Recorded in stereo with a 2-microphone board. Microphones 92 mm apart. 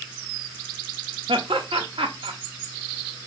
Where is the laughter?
75° right (ahead or behind), 0.8 m.